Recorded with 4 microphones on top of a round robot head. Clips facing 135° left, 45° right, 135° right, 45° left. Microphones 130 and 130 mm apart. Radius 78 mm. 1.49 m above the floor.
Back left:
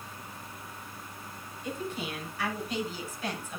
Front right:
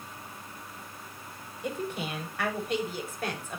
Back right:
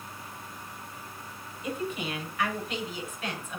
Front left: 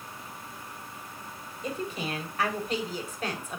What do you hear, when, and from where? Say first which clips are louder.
1.6 s a woman speaking: front right 2 dB, even; 10° right, 7 m; by 3.6 s 5° right, 6 m